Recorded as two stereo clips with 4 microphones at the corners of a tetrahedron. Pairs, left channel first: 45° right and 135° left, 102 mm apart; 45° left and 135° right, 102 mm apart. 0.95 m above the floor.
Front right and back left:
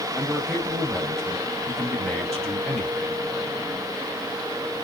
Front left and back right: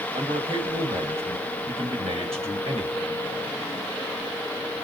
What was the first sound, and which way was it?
A man speaking, 140° right.